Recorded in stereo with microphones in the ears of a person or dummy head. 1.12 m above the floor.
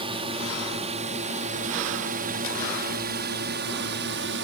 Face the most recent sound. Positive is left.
turn(degrees=-60)  # may be behind; listen again after turning